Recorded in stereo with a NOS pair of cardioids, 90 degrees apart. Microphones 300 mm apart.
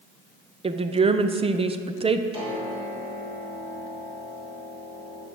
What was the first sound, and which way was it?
A woman speaking, 20° right.